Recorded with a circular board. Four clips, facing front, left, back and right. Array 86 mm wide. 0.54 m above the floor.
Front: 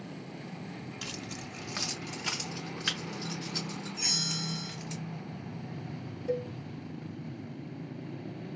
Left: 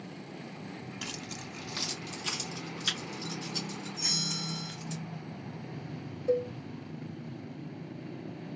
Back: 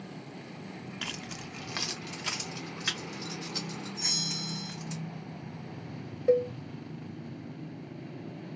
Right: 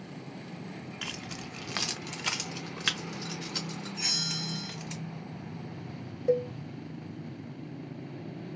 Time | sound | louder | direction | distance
1.0 | keys jangling | right 1 dB, even | 150° right | 0.6 m
4.0 | a bell | even, front 1 dB | 60° right | 2 m
6.3 | a cowbell | right 2 dB, back 9 dB | 160° right | 1.1 m